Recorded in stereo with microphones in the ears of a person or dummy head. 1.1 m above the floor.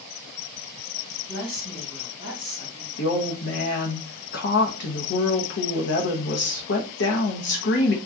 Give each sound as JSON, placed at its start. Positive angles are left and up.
{"t": 1.3, "sound": "a woman speaking", "side_deg": 55, "distance_m": 1.9}
{"t": 3.0, "sound": "a woman speaking", "side_deg": 55, "distance_m": 0.9}